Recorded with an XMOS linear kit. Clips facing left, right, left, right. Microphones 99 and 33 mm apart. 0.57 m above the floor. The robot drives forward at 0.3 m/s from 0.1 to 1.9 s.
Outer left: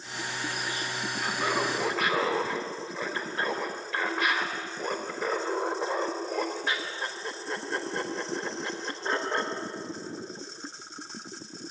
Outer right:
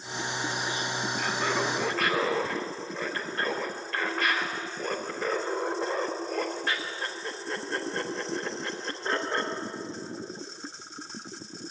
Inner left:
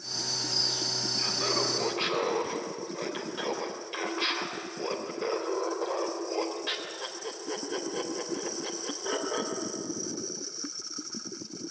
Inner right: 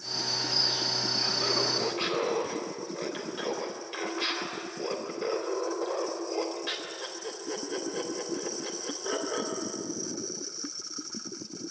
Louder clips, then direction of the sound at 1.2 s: Outer left 1 dB, even; 5° left (ahead or behind).